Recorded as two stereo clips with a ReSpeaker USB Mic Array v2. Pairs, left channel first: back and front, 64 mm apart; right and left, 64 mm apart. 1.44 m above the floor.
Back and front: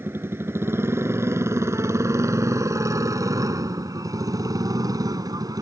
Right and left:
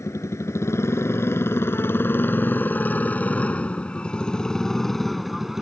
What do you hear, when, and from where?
0.0 s a motorcycle: 50° right; by 5.6 s 5° left